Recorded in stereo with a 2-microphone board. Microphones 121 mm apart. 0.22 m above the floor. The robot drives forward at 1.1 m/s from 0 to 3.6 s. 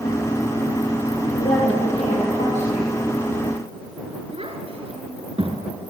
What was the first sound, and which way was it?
A woman speaking, 80° left.